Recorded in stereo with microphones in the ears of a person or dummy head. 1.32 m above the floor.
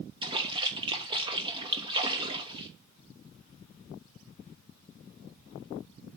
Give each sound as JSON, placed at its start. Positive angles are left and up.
{"t": 0.2, "sound": "a splash", "side_deg": -25, "distance_m": 1.1}